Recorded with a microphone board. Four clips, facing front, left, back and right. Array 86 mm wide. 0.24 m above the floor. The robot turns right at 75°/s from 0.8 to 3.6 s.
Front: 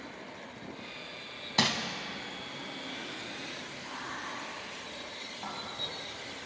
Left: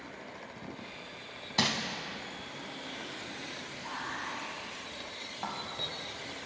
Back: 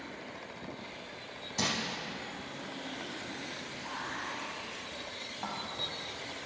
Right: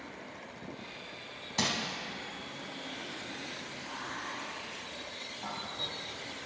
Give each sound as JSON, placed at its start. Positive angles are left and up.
{"t": 1.6, "sound": "crumpling", "azimuth_deg": 20, "distance_m": 0.6}
{"t": 3.8, "sound": "whispering", "azimuth_deg": 115, "distance_m": 1.2}